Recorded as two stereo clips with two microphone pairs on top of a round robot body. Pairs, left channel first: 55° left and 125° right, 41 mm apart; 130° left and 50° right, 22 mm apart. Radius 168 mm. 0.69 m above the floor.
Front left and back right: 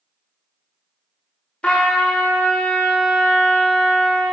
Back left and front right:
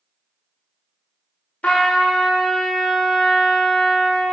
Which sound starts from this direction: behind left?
A trumpet, at 1.6 s.